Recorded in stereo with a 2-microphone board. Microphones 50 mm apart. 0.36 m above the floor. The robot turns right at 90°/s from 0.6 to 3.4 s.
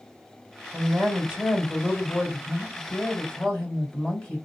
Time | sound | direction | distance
0.7 | a woman speaking | 90° right | 1.9 m